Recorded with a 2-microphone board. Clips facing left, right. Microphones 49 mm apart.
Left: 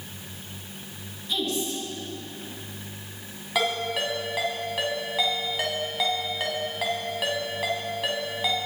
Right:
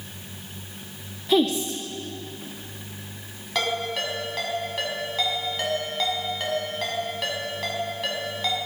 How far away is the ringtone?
About 4.5 m.